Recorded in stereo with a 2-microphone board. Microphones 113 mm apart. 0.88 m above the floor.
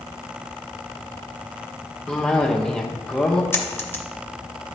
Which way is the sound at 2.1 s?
5° left (ahead or behind).